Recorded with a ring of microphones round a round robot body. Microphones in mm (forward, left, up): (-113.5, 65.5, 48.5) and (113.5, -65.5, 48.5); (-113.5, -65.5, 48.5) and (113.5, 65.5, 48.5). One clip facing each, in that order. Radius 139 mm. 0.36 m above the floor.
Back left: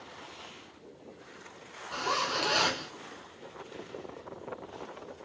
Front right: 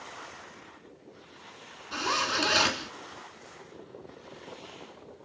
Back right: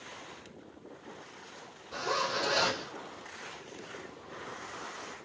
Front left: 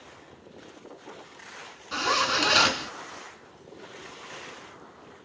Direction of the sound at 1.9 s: 30° left.